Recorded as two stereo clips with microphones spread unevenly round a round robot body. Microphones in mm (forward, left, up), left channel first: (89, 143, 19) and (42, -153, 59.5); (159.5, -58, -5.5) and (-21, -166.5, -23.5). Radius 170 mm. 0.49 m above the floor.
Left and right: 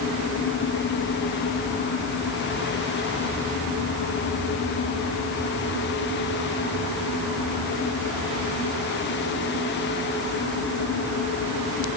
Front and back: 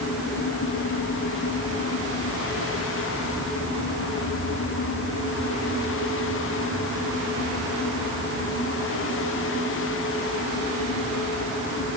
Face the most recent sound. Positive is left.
No sound to turn to.